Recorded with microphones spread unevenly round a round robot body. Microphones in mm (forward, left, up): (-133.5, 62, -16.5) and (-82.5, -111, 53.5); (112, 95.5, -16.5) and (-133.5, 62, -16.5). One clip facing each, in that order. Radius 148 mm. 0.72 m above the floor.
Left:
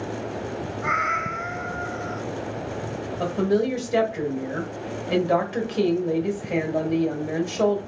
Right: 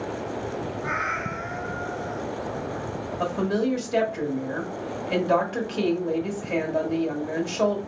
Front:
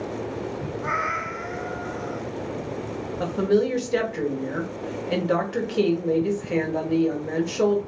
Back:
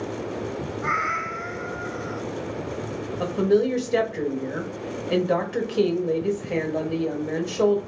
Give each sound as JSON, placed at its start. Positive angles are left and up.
{"t": 0.8, "sound": "a cat meowing", "azimuth_deg": 130, "distance_m": 0.7}
{"t": 3.2, "sound": "a woman speaking", "azimuth_deg": 100, "distance_m": 1.1}